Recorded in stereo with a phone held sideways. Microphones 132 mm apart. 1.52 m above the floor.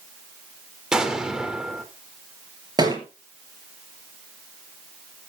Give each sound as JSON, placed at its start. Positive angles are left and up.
{"t": 0.9, "sound": "an explosion", "side_deg": -5, "distance_m": 2.0}
{"t": 2.8, "sound": "a thud", "side_deg": -30, "distance_m": 6.0}